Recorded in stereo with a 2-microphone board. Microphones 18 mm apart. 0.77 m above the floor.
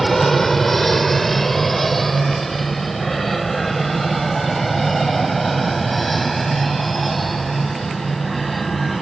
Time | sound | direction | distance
0.0 | an aircraft | 10° left (ahead or behind) | ?